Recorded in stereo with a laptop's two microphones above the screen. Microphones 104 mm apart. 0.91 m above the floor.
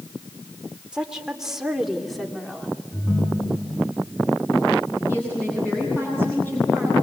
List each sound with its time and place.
0.9 s a woman speaking: 10° right (ahead or behind), 3 m; by 2.7 s 5° left (ahead or behind), 2.5 m
2.9 s a ringtone: 15° left (ahead or behind), 7 m
5.1 s a woman speaking: 20° left (ahead or behind), 9 m